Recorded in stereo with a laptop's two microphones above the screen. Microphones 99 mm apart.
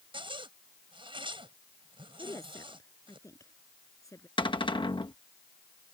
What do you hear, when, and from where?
0.1 s a zipper: 65° right (ahead or behind)
2.2 s a woman speaking: 35° left (ahead or behind)
4.4 s a cupboard door: 60° left (ahead or behind)